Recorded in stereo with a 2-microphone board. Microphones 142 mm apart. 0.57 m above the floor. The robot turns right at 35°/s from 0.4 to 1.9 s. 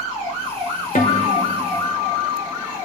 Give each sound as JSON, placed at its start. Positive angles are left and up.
{"t": 0.9, "sound": "a guitar", "azimuth_deg": 80, "distance_m": 2.0}